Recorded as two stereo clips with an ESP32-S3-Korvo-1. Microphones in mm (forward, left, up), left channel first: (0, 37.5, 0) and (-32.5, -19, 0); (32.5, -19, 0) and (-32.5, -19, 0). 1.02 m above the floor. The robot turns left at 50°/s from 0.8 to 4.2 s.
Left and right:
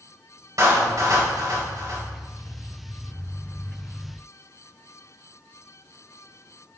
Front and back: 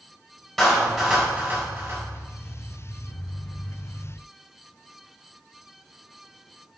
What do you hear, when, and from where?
0.6 s a clap: 90° right, 4.5 m; by 2.0 s 150° right, 4.5 m